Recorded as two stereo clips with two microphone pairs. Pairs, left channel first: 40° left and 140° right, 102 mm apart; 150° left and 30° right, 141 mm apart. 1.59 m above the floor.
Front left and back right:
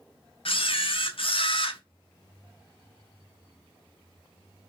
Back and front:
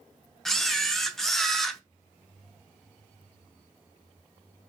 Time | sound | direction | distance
0.5 | a camera shutter | 60° left | 0.6 m